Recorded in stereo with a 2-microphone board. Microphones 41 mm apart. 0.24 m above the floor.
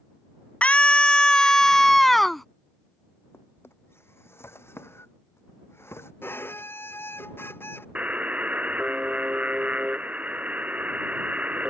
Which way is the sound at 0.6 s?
35° left (ahead or behind).